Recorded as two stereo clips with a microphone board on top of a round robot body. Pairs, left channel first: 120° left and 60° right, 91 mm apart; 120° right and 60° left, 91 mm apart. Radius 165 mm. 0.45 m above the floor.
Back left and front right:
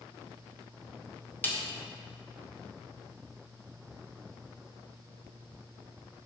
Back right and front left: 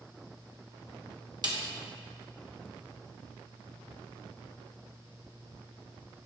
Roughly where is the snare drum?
Ahead left.